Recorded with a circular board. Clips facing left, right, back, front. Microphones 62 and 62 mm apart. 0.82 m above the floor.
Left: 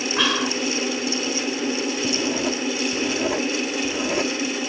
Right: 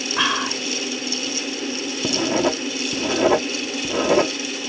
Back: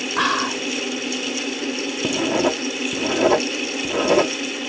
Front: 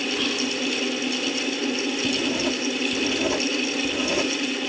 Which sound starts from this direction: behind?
Whispering, at 0.2 s.